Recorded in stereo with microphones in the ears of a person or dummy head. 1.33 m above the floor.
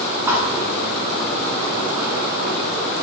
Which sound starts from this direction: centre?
A thud, at 0.3 s.